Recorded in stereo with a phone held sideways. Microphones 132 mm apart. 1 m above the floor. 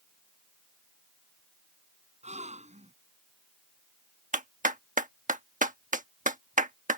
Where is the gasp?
60° right (ahead or behind).